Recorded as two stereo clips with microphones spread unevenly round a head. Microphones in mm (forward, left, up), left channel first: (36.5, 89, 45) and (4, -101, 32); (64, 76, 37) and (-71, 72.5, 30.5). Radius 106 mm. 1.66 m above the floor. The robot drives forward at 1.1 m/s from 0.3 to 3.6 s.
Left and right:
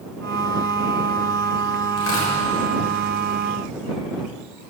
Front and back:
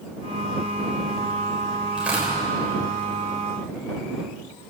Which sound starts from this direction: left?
Tearing paper, at 2.0 s.